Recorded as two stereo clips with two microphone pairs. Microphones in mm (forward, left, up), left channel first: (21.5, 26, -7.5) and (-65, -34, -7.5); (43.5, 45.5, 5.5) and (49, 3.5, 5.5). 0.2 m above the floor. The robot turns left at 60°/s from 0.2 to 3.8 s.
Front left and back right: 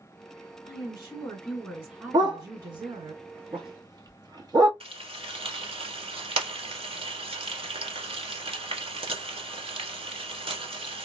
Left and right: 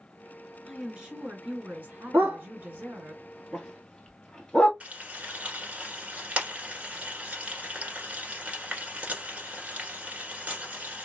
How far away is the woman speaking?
About 2 m.